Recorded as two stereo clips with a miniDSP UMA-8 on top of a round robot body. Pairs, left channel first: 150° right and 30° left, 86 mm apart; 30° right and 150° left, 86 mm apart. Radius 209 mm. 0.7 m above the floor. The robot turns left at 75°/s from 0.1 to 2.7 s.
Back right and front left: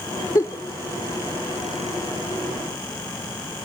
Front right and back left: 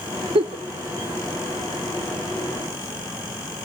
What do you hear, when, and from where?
0.3 s a giggle: 160° left, 0.6 m; by 0.6 s 135° left, 0.6 m